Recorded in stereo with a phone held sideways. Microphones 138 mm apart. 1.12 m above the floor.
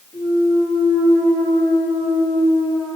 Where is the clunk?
5° left (ahead or behind), 1.6 m.